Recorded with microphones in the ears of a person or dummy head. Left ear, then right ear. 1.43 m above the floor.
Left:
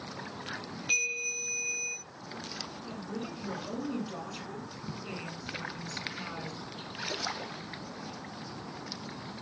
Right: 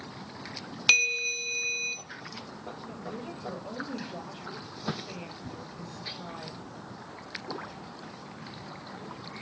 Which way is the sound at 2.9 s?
80° left.